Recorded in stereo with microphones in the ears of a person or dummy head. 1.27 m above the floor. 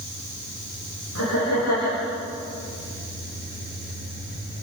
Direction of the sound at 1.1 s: 65° left (ahead or behind).